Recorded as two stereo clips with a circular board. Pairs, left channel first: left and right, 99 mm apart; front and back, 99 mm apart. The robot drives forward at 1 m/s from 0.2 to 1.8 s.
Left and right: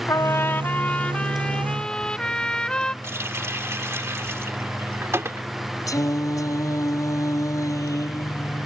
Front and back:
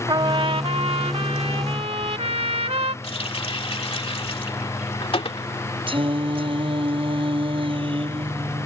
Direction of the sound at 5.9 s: 145° left.